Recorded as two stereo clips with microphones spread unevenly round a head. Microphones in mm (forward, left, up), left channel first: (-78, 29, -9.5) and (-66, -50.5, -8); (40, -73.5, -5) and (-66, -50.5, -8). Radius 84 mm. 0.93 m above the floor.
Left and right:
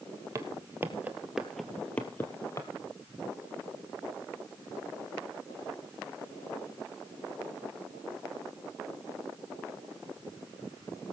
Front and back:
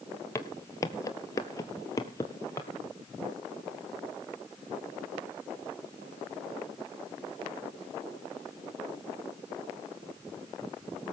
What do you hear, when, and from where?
0.3 s footsteps: 55° right, 1.1 m; by 2.7 s 50° left, 1.3 m